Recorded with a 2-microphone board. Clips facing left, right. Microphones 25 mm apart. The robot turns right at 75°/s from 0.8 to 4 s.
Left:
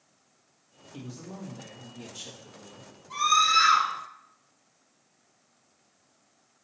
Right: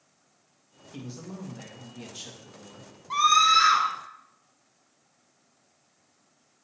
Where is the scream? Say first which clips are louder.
Right 3 dB; 45° right, 1.3 m; by 3.9 s 15° left, 1.3 m.